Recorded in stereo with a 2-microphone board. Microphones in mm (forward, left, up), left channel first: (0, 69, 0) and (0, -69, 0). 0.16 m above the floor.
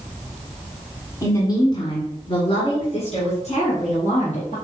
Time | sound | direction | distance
1.2 | a woman speaking | 25° left (ahead or behind) | 1.6 m